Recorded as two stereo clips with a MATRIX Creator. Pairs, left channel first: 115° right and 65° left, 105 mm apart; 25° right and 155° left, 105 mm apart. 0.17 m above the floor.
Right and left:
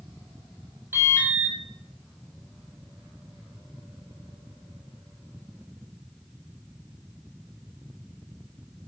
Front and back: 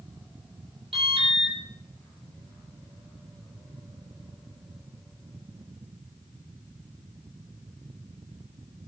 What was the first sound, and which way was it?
An alarm, 135° left.